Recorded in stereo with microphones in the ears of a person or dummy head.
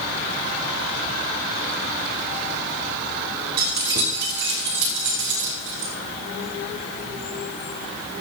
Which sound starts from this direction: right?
Keys jangling, at 3.6 s.